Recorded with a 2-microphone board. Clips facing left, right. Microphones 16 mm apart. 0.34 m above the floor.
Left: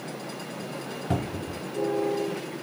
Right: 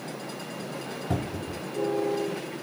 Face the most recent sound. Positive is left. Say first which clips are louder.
# left 2 dB
turn(degrees=25)  # may be behind; listen again after turning